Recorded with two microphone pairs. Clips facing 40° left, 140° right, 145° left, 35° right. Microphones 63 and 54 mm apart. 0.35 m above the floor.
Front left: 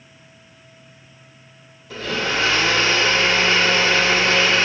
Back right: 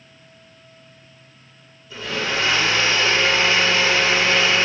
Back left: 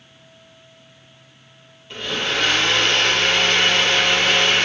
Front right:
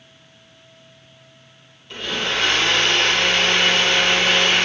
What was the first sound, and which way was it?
A blender, 60° left.